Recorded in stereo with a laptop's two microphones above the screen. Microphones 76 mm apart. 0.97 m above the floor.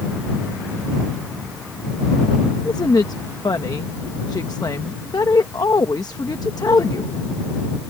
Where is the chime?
No chime in this recording.